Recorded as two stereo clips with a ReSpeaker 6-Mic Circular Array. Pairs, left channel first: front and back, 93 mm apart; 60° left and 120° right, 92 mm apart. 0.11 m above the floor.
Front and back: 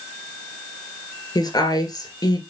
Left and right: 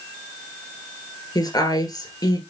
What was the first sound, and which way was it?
A woman speaking, 30° left.